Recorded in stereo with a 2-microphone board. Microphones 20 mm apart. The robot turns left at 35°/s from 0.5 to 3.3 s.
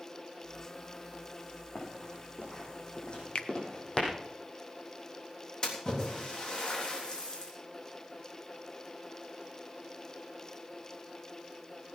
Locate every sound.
1.8 s running footsteps: 70° left (ahead or behind), 6 m; by 4.1 s 35° left (ahead or behind), 4 m
3.4 s a finger snap: 55° left (ahead or behind), 0.9 m
5.6 s a splash: 35° left (ahead or behind), 3.5 m